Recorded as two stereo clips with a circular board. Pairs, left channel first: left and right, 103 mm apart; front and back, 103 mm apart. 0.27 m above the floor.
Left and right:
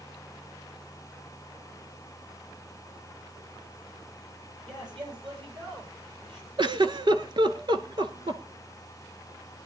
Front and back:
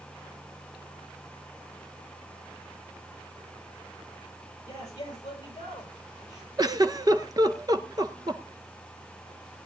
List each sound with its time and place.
4.7 s a man speaking: 50° right, 8.5 m; by 6.5 s 55° right, 7.5 m
6.6 s a giggle: 130° right, 0.8 m